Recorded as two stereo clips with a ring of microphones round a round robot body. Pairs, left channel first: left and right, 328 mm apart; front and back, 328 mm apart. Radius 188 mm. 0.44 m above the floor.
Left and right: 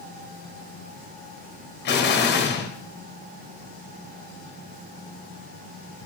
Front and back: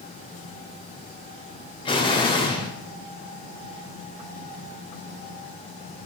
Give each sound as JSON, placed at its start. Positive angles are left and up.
{"t": 1.9, "sound": "an explosion", "azimuth_deg": 65, "distance_m": 0.6}